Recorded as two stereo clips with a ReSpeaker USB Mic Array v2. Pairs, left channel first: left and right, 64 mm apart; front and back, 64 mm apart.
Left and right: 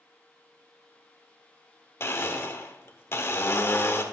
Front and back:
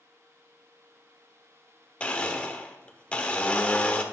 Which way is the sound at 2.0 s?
65° left.